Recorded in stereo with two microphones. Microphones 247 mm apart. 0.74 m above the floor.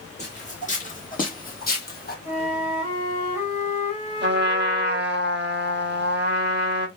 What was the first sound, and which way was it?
Footsteps, 25° left (ahead or behind).